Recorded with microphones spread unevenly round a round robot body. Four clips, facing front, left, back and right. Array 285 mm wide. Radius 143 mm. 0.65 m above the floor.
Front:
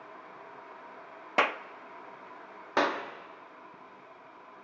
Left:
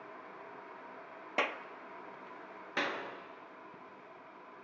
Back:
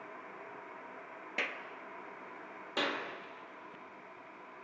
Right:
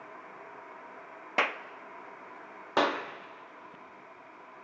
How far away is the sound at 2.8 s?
About 1.3 m.